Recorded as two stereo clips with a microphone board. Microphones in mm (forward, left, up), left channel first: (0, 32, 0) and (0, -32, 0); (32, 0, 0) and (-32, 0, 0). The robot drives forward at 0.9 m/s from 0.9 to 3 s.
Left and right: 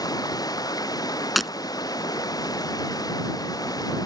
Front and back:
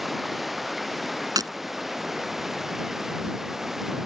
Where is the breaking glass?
Straight behind.